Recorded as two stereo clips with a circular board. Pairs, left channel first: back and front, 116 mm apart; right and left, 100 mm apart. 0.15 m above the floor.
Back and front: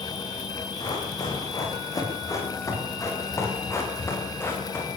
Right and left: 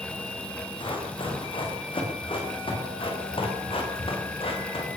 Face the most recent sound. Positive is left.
turn(degrees=-110)